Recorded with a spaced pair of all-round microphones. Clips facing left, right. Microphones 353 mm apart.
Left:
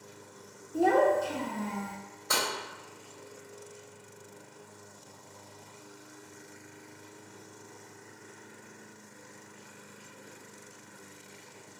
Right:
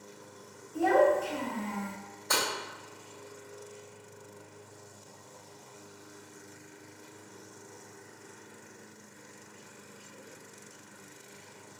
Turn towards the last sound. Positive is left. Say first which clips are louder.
# right 1 dB
turn(degrees=10)  # may be behind; listen again after turning